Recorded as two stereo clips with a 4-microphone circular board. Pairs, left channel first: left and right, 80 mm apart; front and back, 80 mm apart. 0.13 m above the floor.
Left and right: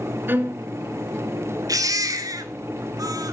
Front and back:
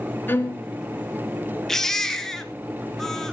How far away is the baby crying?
About 1.4 m.